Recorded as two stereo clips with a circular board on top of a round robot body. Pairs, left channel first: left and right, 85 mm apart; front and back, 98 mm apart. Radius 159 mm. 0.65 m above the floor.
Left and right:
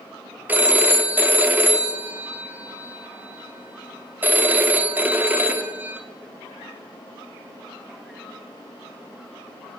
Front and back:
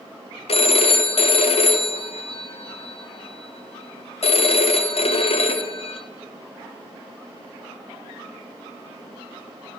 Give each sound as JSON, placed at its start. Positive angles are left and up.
{"t": 0.5, "sound": "a phone ringing", "azimuth_deg": -20, "distance_m": 1.2}